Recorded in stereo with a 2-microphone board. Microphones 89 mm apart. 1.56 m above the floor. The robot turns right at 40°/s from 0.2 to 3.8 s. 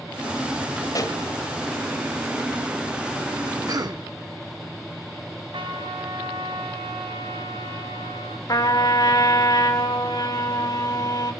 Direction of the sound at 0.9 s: 40° left (ahead or behind).